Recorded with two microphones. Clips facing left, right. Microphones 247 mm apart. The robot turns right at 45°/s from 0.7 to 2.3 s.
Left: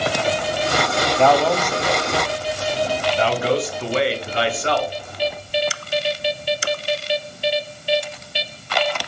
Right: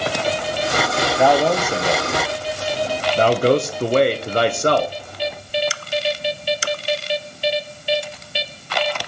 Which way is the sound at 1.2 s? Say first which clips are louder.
Right 1 dB; 5° right (ahead or behind).